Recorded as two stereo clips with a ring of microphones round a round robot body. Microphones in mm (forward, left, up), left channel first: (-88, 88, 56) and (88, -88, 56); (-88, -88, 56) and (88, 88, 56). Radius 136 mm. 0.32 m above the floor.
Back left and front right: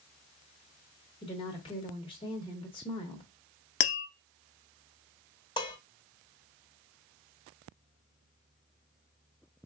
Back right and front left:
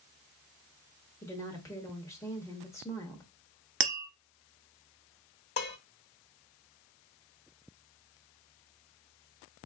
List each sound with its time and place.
1.2 s a woman speaking: 165° left, 0.9 m
3.8 s tapping: 90° left, 0.8 m
5.6 s dishes clattering: 160° right, 0.8 m